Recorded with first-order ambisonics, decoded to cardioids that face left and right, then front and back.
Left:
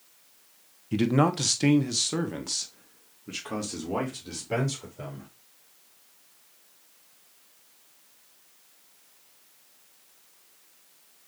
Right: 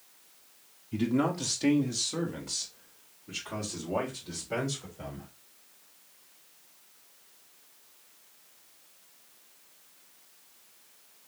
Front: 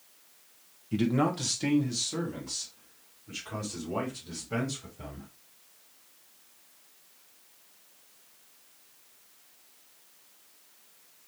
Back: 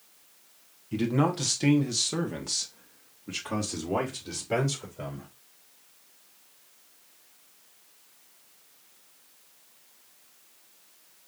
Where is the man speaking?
85° left, 1.3 m; by 5.3 s 145° left, 3.5 m.